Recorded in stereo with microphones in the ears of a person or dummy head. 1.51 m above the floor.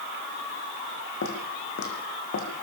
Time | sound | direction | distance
1.2 | footsteps | 70° left (ahead or behind) | 6 m